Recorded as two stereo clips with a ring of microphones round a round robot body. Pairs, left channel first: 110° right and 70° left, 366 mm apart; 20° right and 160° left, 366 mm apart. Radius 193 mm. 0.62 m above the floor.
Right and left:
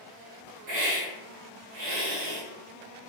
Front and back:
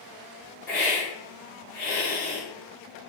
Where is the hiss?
40° left, 1.4 m.